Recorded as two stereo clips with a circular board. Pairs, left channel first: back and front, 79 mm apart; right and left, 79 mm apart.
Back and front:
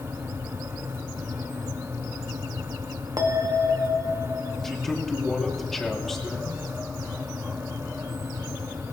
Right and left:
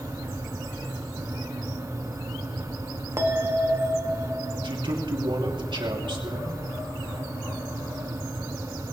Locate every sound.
3.2 s a bell: 40° left, 2 m
4.6 s a man speaking: 95° left, 3 m